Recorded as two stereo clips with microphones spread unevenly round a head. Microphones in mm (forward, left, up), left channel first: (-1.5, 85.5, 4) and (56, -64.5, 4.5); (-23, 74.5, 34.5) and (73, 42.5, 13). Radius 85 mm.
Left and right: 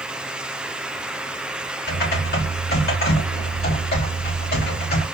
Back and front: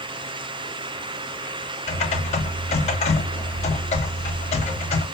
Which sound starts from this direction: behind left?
Typing on a keyboard, at 1.9 s.